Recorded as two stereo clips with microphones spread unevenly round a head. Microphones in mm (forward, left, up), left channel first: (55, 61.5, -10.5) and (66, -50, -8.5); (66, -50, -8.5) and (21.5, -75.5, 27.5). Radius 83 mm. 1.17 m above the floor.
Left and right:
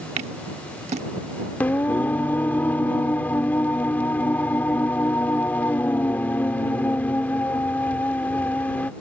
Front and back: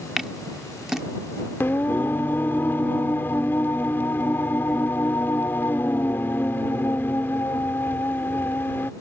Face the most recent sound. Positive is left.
turn(degrees=150)